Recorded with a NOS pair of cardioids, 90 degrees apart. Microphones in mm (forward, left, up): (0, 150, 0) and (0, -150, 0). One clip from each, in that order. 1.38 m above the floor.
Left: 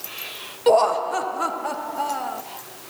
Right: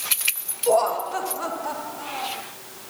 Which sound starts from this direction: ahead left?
Laughter, at 0.7 s.